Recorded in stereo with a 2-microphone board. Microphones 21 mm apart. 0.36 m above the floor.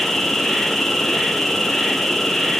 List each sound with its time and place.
0.0 s an insect: 15° left (ahead or behind), 6 m